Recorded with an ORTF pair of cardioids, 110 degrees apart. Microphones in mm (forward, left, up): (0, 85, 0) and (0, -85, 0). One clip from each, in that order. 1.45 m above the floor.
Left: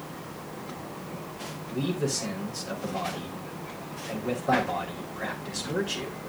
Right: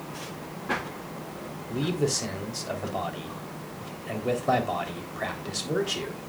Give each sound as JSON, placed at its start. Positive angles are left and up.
{"t": 1.7, "sound": "a man speaking", "azimuth_deg": -25, "distance_m": 3.5}